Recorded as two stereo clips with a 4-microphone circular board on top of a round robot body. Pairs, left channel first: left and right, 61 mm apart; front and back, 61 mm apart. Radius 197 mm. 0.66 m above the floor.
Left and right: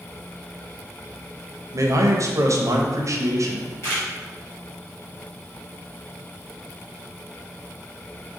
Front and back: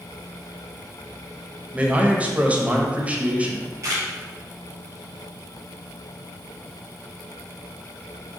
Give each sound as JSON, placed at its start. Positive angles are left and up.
{"t": 1.7, "sound": "a man speaking", "azimuth_deg": -115, "distance_m": 0.8}
{"t": 3.8, "sound": "a camera shutter", "azimuth_deg": 135, "distance_m": 1.5}